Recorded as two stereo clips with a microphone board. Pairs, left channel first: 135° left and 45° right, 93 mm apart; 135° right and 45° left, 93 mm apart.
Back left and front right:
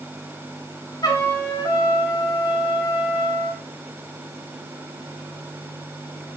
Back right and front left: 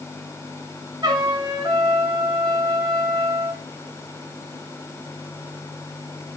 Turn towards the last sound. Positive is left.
turn(degrees=85)